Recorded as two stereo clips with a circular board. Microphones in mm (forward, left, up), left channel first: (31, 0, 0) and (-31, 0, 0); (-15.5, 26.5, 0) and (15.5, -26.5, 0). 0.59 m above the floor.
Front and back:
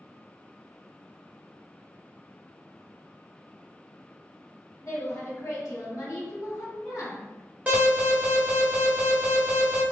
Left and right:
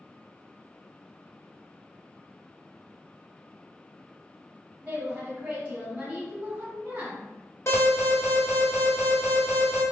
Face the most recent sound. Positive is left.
turn(degrees=135)